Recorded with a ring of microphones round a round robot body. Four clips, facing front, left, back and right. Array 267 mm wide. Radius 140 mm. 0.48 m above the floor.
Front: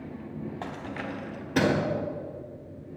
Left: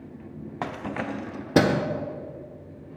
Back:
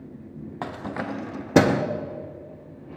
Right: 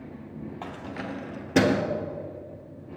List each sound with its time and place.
0.6 s keys jangling: 125° left, 0.8 m; by 1.8 s 160° left, 1.2 m